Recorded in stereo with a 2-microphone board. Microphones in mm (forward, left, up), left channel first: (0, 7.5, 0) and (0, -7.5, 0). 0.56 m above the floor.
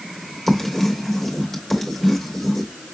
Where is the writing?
5° right (ahead or behind), 2 m.